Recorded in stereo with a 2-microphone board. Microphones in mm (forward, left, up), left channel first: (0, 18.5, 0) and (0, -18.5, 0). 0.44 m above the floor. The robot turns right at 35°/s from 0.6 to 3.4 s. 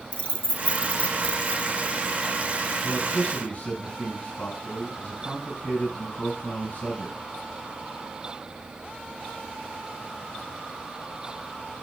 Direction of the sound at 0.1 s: 35° left (ahead or behind).